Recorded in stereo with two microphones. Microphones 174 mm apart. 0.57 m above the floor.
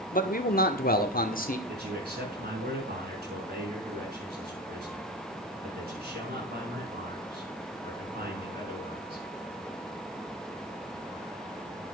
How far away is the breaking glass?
I don't hear breaking glass.